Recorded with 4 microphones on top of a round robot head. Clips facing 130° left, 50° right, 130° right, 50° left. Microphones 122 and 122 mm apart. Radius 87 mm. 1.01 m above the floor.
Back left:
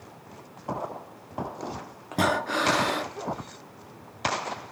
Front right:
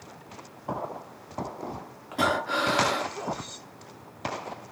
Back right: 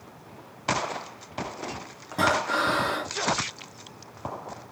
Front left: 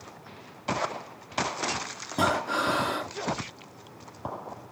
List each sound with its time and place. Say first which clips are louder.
2.1 s breathing: back left 1 dB, back right 2 dB; 115° left, 1.1 m